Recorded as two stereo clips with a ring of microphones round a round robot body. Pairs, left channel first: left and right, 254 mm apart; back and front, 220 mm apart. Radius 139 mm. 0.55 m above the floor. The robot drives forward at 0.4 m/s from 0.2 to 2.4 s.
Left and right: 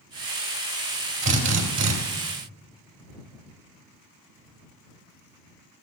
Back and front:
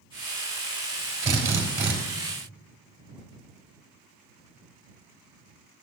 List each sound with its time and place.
1.2 s a drill: 75° right, 3.5 m; by 1.9 s 80° right, 3.5 m